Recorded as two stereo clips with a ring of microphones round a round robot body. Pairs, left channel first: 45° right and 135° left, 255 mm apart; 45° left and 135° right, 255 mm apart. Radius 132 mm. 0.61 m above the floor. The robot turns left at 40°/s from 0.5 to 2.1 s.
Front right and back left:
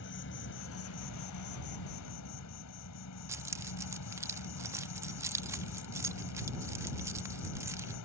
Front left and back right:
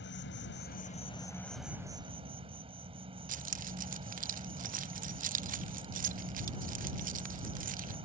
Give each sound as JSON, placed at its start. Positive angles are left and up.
{"t": 0.0, "sound": "an insect", "azimuth_deg": 0}
{"t": 3.3, "sound": "keys jangling", "azimuth_deg": -155}